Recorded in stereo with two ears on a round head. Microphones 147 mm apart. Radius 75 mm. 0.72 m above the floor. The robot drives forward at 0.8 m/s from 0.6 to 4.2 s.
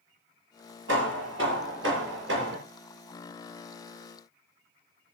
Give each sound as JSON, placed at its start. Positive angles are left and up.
{"t": 0.9, "sound": "hammering", "side_deg": -80, "distance_m": 6.0}